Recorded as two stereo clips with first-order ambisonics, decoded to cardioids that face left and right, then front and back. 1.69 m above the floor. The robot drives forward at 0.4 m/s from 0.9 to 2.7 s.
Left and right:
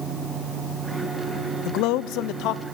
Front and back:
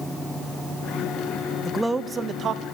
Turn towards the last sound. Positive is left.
turn(degrees=130)